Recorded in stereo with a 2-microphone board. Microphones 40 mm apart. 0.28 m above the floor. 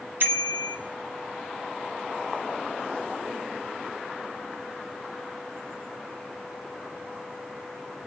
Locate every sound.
0.2 s a bicycle bell: 55° right (ahead or behind), 2 m